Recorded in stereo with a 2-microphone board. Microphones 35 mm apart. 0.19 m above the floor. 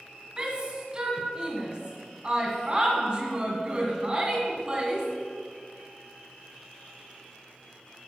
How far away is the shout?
About 1.9 m.